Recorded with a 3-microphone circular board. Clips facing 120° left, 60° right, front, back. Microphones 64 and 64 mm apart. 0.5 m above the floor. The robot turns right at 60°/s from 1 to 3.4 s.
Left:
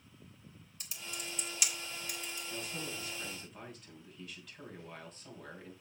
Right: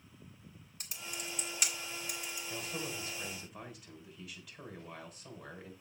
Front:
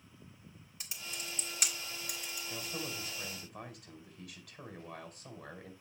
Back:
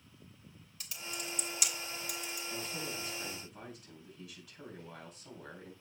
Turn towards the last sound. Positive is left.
turn(degrees=20)